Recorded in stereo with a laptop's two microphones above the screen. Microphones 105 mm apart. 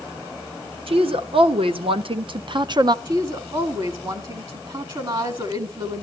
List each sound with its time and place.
0.9 s a woman speaking: 60° right (ahead or behind), 1.5 m; by 3.0 s 40° right (ahead or behind), 0.7 m
3.0 s a woman speaking: 45° right (ahead or behind), 1.8 m